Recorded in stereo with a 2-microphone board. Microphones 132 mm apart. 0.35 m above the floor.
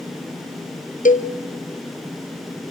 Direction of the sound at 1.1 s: 80° left.